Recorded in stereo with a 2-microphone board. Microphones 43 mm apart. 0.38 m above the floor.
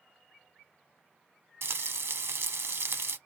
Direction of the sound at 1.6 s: 75° right (ahead or behind).